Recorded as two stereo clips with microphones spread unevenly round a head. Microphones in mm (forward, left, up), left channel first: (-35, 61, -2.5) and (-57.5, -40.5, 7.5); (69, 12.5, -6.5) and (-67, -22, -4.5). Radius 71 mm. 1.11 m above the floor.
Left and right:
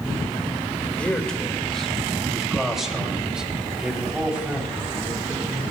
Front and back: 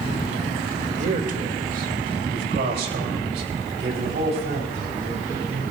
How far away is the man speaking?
About 1.9 m.